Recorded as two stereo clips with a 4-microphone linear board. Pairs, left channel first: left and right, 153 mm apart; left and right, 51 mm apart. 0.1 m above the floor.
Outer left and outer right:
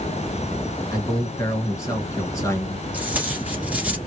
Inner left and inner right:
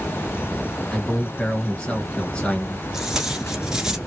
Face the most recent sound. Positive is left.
turn(degrees=-10)  # may be behind; listen again after turning